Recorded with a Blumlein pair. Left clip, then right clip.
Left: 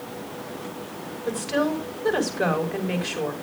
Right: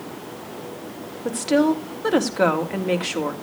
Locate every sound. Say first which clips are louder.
1.2 s a woman speaking: right 5 dB; 50° right, 3 m